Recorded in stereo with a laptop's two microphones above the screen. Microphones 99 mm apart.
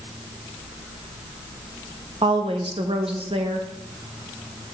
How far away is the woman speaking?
About 1.0 m.